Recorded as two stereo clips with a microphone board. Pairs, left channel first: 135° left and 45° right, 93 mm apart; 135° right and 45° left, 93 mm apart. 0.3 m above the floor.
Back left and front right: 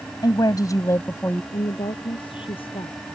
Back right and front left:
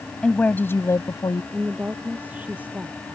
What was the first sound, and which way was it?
A woman speaking, 150° left.